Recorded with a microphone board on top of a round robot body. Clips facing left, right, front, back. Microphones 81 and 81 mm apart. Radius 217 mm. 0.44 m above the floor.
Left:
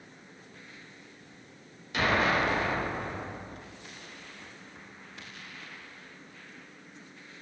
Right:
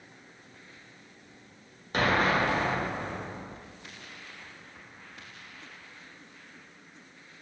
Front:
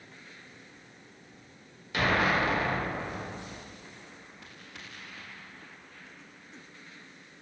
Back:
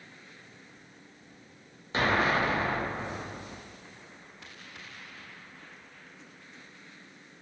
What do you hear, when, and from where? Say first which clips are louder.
1.9 s an explosion: right 1 dB, even; 125° right, 0.7 m